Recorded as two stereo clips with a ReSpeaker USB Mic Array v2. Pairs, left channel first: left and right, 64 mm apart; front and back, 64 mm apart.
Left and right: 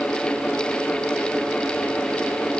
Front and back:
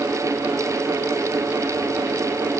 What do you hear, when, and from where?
Only background noise.